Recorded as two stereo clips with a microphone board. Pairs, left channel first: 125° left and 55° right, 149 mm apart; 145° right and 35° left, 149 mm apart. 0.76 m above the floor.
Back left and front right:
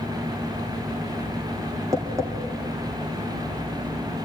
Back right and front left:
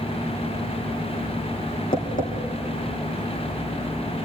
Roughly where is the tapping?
Behind right.